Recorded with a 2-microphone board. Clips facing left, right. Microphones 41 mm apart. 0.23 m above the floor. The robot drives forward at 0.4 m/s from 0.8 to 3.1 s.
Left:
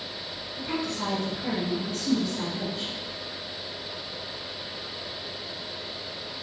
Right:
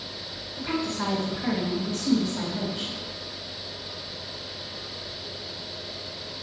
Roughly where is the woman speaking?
Right.